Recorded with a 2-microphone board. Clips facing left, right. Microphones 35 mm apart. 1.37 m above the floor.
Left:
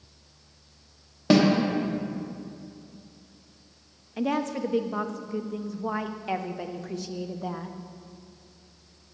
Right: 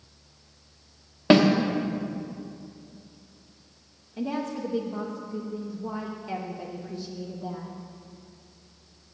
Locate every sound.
1.3 s a snare drum: 30° right (ahead or behind), 0.9 m
4.2 s a woman speaking: 85° left, 0.6 m